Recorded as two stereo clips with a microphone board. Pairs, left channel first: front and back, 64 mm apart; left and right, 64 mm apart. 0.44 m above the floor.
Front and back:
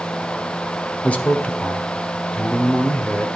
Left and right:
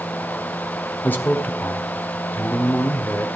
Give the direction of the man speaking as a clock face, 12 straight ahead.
10 o'clock.